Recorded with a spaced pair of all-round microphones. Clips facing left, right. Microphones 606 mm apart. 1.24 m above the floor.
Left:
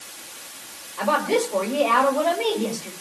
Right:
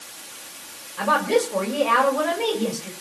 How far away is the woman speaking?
About 7 m.